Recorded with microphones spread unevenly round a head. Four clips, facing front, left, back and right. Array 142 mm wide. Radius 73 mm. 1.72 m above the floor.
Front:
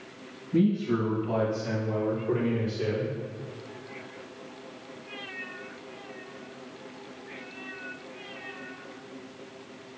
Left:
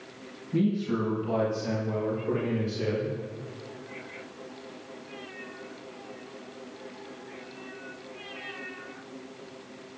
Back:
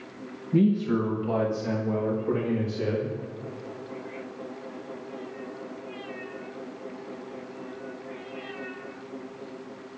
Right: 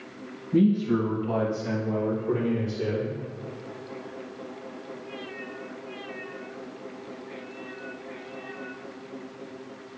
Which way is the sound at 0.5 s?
170° right.